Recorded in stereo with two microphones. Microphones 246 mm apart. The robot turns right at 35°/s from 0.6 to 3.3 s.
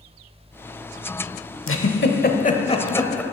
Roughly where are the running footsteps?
I don't hear running footsteps.